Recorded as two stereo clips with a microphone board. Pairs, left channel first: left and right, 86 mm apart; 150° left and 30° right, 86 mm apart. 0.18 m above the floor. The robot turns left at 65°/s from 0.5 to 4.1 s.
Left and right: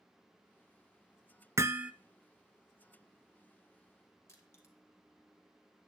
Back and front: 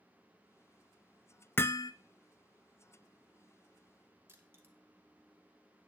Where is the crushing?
35° left, 1.6 m.